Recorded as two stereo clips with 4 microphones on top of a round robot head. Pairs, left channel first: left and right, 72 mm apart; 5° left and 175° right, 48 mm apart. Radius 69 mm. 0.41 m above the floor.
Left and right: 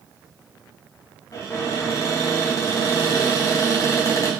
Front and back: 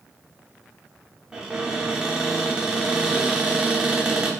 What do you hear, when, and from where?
1.3 s a cupboard door: 110° left, 0.8 m